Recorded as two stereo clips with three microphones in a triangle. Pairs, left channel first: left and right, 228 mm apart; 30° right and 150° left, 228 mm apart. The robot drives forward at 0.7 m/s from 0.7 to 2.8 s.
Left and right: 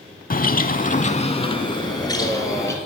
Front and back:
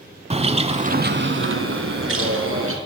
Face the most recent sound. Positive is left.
turn(degrees=165)